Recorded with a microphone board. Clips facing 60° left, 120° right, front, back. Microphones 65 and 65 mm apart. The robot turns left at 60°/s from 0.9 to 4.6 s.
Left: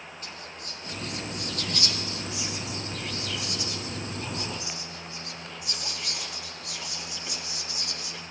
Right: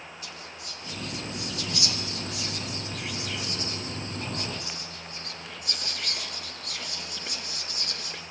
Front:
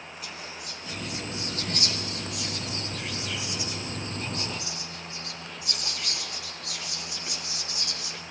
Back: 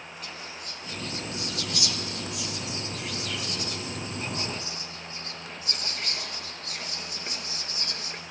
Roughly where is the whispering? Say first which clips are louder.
Left 1 dB, front 1 dB; left.